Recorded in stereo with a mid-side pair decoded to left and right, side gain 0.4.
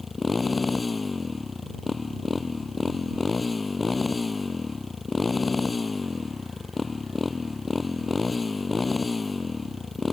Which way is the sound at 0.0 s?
35° left.